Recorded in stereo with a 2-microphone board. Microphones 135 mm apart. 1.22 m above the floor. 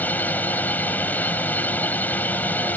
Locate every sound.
0.0 s a drone: 10° left (ahead or behind)